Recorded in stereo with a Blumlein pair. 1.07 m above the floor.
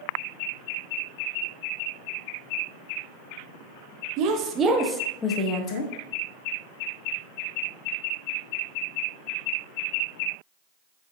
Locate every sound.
4.2 s a woman speaking: 45° right, 0.7 m; by 5.9 s 40° left, 0.8 m